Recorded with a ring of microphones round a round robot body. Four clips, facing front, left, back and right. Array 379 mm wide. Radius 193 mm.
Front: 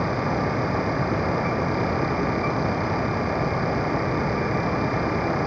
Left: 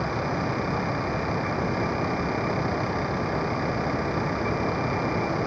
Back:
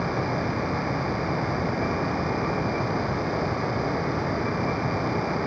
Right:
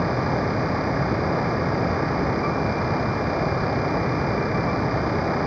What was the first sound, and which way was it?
Only background noise.